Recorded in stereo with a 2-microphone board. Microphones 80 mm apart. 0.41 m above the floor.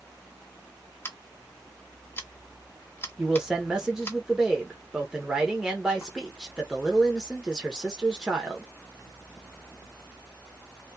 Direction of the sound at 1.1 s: 30° left (ahead or behind).